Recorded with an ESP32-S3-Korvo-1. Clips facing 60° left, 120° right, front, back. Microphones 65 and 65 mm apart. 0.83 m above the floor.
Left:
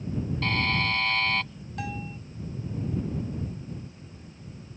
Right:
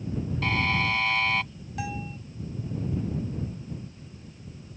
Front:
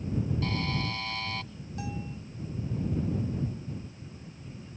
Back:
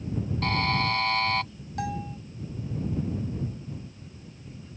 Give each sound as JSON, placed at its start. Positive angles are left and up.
{"t": 0.4, "sound": "a buzzer", "azimuth_deg": 155}
{"t": 1.8, "sound": "a bell", "azimuth_deg": 155}